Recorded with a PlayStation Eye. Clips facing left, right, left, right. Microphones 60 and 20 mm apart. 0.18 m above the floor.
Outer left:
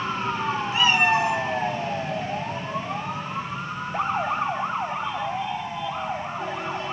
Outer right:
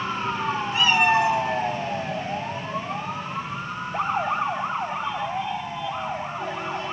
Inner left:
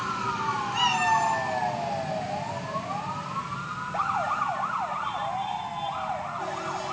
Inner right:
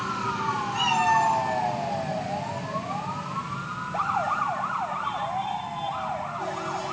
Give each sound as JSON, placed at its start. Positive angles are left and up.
{"t": 0.7, "sound": "a cat meowing", "side_deg": 20, "distance_m": 1.4}